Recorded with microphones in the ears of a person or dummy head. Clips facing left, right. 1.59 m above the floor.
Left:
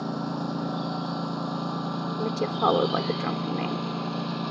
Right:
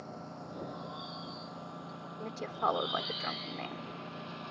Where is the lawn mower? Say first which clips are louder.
Left 15 dB; 80° left; by 4.5 s 70° left (ahead or behind).